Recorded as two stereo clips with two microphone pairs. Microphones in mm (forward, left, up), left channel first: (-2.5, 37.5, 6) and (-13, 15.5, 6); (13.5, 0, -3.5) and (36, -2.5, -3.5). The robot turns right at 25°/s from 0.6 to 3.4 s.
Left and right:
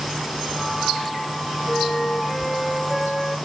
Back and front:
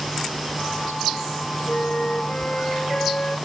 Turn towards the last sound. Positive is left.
turn(degrees=175)